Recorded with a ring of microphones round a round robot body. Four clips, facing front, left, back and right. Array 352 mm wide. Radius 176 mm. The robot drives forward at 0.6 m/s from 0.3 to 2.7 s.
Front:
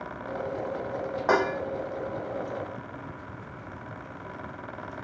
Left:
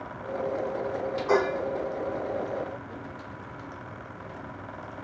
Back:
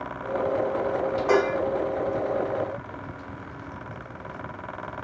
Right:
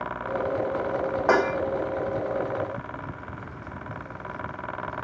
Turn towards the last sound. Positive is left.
turn(degrees=-105)